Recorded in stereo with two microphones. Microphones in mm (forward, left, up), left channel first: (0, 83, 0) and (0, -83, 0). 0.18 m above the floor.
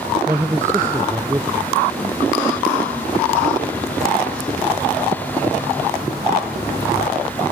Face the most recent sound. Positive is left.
turn(degrees=-15)  # may be behind; listen again after turning